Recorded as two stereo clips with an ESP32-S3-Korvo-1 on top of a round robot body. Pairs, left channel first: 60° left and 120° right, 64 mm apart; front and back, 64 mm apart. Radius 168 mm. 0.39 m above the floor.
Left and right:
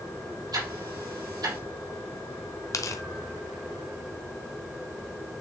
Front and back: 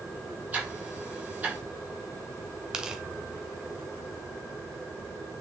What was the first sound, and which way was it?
Ticking, 115° right.